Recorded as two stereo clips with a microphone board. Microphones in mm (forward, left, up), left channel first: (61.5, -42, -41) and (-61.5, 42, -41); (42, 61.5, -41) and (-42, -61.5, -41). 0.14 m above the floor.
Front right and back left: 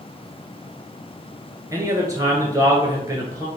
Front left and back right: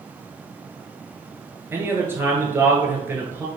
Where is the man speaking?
Straight behind, 1.2 m.